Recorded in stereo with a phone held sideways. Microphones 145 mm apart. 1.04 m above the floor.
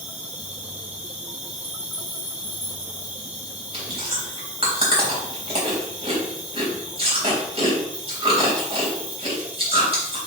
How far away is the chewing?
About 3.5 m.